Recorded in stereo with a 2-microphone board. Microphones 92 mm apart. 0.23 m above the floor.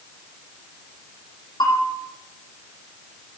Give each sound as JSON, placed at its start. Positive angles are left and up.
{"t": 1.6, "sound": "a bell", "side_deg": 50, "distance_m": 6.5}